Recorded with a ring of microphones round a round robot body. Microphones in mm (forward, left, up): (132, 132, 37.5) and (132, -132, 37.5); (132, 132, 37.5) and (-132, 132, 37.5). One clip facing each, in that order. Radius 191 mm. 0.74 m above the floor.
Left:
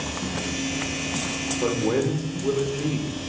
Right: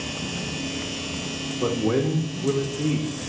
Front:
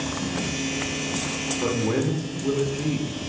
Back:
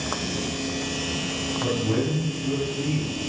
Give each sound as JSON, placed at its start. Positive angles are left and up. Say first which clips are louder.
{"t": 1.6, "sound": "a man speaking", "louder": "right 1 dB, front 1 dB", "azimuth_deg": -25, "distance_m": 1.1}